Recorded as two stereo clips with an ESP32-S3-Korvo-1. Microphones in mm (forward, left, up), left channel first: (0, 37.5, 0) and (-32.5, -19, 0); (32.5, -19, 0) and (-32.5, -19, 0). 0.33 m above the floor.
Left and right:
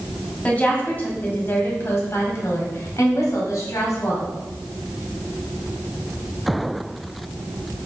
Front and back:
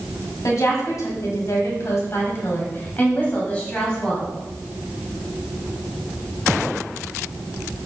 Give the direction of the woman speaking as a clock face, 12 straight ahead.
12 o'clock.